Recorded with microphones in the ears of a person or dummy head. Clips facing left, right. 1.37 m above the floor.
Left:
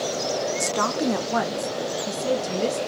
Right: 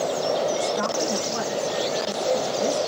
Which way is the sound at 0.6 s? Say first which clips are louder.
Even; 55° left (ahead or behind).